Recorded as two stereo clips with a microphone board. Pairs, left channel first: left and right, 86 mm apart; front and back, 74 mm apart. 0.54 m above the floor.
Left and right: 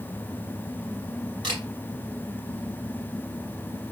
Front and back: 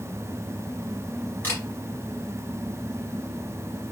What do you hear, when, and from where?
1.4 s a camera shutter: 65° right, 1.8 m